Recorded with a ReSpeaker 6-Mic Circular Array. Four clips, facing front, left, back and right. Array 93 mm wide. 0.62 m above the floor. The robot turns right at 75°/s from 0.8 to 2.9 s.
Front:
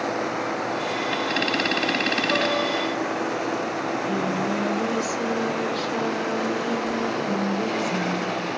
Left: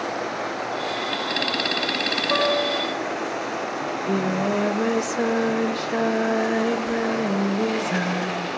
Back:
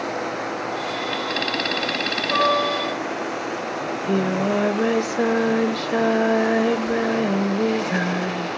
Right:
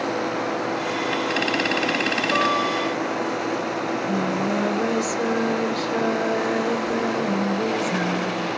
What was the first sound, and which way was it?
A guitar, 85° left.